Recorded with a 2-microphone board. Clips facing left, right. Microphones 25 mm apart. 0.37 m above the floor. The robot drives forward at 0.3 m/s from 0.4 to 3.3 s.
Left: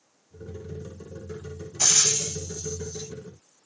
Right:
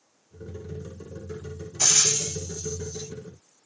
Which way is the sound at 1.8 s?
5° right (ahead or behind).